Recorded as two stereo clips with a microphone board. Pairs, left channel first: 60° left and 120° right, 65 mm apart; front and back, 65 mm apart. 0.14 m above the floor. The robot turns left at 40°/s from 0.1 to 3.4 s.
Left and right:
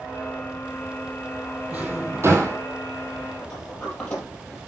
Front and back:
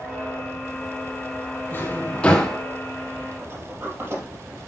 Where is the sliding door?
130° left, 4.5 m.